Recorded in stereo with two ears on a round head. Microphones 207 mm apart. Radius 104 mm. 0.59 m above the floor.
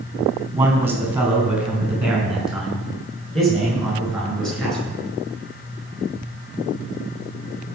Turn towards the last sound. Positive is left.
turn(degrees=5)  # may be behind; listen again after turning